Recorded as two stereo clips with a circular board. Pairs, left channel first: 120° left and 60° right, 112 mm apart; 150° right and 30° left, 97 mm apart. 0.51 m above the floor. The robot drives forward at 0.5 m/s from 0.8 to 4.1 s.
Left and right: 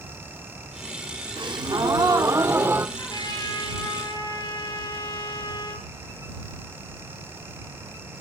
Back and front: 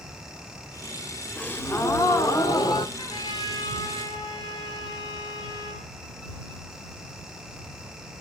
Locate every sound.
1.4 s a gasp: 85° right, 1.2 m; by 2.9 s 125° right, 1.3 m
3.0 s a trumpet: 170° left, 5.5 m